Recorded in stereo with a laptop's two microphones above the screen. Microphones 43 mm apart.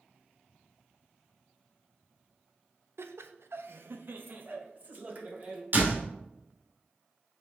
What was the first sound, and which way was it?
Laughter, 80° right.